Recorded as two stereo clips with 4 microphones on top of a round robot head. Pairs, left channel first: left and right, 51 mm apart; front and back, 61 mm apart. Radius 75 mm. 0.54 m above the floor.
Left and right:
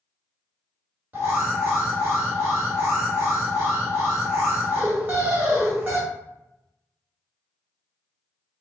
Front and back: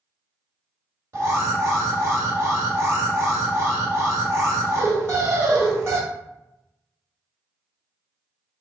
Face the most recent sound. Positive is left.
turn(degrees=-135)